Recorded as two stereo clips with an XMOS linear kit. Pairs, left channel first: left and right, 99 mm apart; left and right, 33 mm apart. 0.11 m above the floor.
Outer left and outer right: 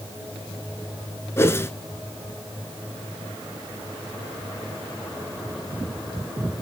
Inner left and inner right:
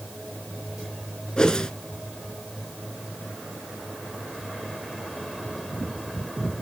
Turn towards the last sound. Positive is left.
turn(degrees=25)  # may be behind; listen again after turning